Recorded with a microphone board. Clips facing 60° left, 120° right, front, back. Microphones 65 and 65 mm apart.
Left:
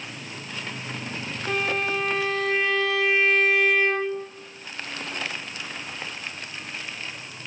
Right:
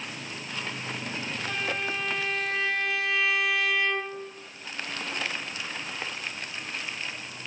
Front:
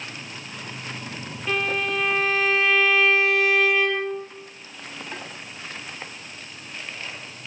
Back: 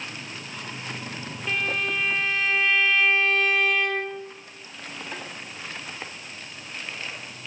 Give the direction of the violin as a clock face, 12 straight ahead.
9 o'clock.